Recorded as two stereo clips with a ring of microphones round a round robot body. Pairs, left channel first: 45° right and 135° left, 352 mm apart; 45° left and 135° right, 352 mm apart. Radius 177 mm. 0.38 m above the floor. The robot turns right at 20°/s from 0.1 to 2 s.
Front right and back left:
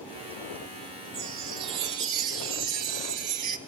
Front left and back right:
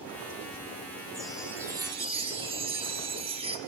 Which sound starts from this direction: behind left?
A chime, at 1.1 s.